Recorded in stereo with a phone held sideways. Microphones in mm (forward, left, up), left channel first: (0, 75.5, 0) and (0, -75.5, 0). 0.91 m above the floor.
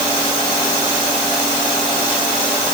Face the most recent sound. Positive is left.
No sound to turn to.